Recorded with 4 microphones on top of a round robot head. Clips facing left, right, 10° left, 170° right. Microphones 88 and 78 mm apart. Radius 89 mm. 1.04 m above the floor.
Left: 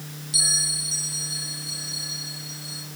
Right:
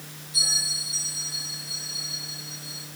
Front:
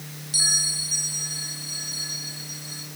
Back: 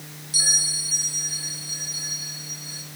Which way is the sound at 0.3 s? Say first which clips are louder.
Left 1 dB, back 1 dB; 105° left.